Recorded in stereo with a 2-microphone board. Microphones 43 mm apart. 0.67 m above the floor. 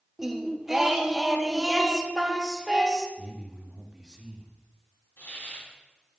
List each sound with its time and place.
0.2 s singing: 10° right (ahead or behind), 0.5 m
3.2 s a man speaking: 20° right (ahead or behind), 1.0 m
5.2 s a hiss: 85° left, 3 m